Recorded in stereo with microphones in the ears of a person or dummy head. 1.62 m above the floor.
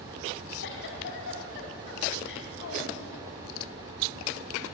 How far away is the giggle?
About 3.5 m.